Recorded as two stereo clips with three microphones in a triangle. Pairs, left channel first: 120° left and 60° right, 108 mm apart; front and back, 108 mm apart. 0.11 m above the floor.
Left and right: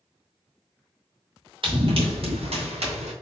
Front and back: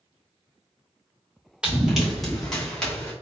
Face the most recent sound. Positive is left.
turn(degrees=-80)